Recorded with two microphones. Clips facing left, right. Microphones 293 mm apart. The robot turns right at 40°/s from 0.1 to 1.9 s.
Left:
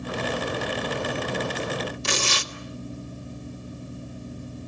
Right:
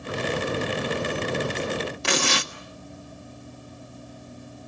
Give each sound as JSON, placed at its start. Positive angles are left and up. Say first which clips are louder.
{"t": 2.0, "sound": "tearing paper", "louder": "right 4 dB", "side_deg": -70, "distance_m": 1.4}